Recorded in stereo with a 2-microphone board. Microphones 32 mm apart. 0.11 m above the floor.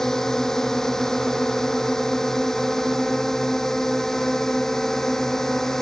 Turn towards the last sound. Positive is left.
turn(degrees=15)  # may be behind; listen again after turning